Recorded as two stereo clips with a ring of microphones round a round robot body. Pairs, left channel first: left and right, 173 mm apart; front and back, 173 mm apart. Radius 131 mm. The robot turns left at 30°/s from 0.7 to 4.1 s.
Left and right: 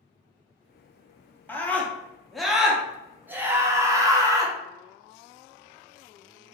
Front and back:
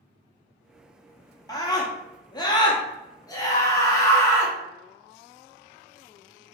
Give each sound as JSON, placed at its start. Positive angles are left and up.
{"t": 1.5, "sound": "a scream", "azimuth_deg": 30, "distance_m": 0.9}